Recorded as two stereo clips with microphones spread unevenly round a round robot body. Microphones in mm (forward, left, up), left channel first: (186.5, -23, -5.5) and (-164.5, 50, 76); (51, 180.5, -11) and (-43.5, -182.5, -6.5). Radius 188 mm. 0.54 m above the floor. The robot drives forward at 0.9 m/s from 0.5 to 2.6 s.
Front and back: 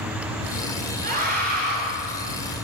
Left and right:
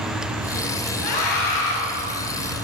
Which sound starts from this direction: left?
A scream, at 1.0 s.